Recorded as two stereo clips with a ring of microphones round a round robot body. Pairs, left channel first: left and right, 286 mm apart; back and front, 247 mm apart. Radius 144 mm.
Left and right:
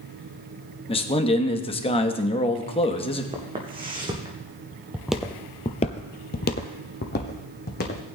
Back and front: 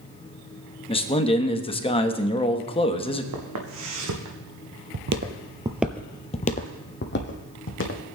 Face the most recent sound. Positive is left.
turn(degrees=145)